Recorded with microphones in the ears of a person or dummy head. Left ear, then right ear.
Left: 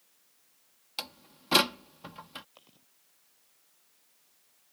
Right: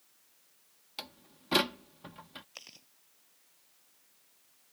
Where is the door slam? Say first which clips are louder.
Left 5 dB; 25° left (ahead or behind).